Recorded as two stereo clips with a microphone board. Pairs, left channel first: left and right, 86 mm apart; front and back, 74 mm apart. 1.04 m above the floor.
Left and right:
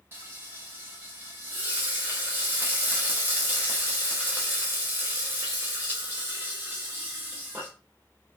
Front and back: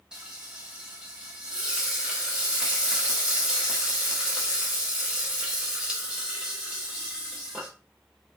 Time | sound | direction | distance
0.1 | frying | 115° right | 0.8 m